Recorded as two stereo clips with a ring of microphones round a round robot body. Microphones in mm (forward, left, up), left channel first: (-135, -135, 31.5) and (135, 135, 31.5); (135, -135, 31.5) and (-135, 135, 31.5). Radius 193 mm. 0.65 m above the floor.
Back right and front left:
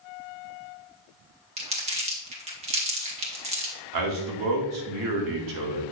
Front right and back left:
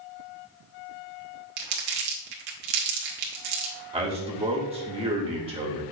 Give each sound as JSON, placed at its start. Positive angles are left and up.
{"t": 1.6, "sound": "crumpling", "azimuth_deg": 115, "distance_m": 1.8}
{"t": 3.9, "sound": "a man speaking", "azimuth_deg": 65, "distance_m": 1.7}